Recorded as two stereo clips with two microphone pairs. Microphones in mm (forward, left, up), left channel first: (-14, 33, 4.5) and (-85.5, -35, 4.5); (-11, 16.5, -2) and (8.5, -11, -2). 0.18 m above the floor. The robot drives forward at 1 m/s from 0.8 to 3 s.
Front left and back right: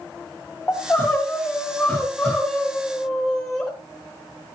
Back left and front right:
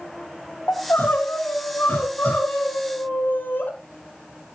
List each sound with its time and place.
0.7 s crying: 115° left, 6.5 m; by 3.7 s 130° left, 7.5 m